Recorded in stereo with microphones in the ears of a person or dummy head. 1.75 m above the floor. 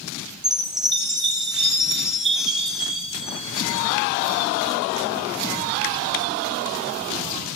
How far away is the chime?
About 7.5 m.